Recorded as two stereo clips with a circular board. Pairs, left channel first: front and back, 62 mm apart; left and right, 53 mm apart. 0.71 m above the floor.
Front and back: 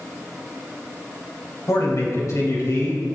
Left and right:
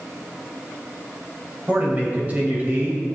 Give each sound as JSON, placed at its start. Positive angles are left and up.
{"t": 1.7, "sound": "a man speaking", "azimuth_deg": -30, "distance_m": 4.0}